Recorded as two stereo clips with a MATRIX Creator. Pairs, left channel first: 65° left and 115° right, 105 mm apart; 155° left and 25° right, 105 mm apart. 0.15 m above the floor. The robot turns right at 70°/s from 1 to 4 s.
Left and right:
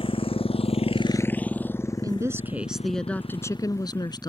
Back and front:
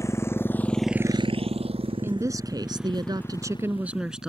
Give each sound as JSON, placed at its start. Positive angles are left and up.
{"t": 0.0, "sound": "a motorcycle", "azimuth_deg": 95}
{"t": 2.0, "sound": "a woman speaking", "azimuth_deg": -80}